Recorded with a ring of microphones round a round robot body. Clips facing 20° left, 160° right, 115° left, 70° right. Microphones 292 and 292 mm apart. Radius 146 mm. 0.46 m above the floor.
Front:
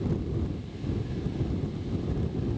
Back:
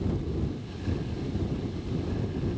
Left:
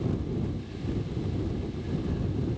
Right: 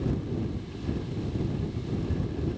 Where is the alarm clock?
I don't hear an alarm clock.